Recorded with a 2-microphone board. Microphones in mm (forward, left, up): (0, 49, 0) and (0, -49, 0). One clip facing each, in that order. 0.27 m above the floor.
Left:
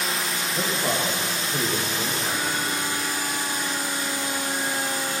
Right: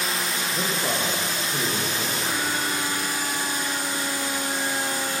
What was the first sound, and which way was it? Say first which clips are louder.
A man speaking: left 2 dB; 10° left (ahead or behind).